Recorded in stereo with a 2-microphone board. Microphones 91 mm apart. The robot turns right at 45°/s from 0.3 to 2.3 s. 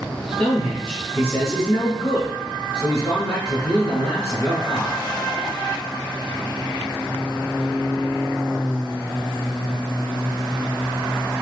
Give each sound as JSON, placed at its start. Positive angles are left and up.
{"t": 0.4, "sound": "a man speaking", "side_deg": 15, "distance_m": 1.6}